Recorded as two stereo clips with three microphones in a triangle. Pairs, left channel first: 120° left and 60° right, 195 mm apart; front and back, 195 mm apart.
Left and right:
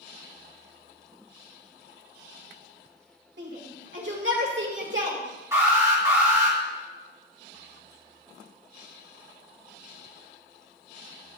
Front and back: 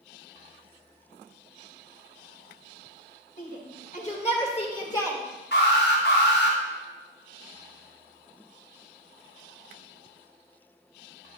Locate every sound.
3.4 s a shout: 40° right, 2 m; by 5.2 s 75° right, 1.7 m
5.5 s an alarm: 15° left, 4 m